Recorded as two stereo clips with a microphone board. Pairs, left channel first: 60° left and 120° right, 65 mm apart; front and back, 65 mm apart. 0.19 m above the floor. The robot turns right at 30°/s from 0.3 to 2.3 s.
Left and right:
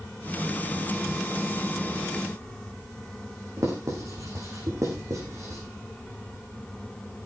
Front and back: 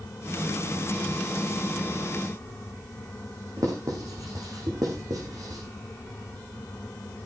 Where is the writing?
155° right, 7 m.